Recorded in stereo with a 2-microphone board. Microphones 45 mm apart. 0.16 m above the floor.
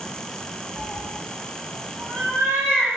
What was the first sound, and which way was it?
A cat meowing, 10° right (ahead or behind).